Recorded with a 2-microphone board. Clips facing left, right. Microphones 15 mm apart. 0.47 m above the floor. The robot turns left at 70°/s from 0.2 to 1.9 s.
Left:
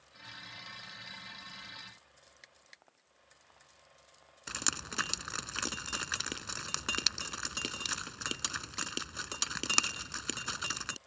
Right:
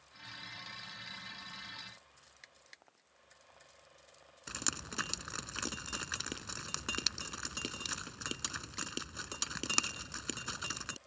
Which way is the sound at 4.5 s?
25° left (ahead or behind).